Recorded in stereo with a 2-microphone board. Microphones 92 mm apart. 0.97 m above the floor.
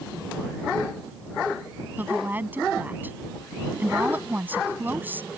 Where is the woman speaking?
20° right (ahead or behind).